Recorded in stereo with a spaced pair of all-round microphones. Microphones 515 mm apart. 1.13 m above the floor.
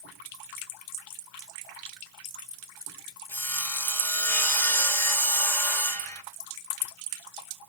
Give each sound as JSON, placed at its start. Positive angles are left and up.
{"t": 3.3, "sound": "sawing", "side_deg": 5, "distance_m": 1.0}